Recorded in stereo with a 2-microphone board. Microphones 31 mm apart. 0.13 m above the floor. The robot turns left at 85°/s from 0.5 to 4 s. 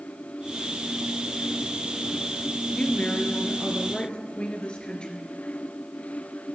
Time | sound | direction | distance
2.7 | a woman speaking | 150° left | 2.0 m